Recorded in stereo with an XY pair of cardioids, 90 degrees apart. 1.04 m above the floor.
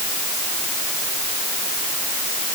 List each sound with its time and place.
Only background noise.